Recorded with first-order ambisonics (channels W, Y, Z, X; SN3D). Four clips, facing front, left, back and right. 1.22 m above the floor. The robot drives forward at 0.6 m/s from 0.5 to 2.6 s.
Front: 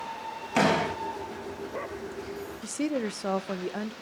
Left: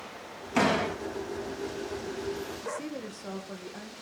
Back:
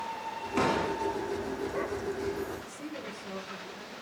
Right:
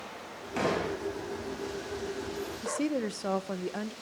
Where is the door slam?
25° left, 4.5 m.